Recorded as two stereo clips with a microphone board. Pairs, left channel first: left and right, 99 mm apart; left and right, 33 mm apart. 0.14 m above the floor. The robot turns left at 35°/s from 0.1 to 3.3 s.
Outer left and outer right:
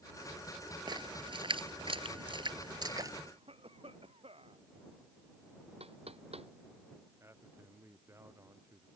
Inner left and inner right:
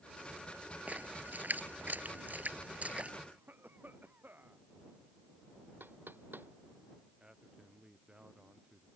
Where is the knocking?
85° right.